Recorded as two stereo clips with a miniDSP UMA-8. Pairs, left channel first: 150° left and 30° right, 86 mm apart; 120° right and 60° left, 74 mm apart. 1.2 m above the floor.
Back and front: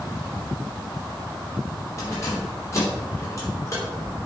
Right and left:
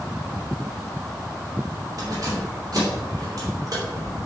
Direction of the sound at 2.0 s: 95° left.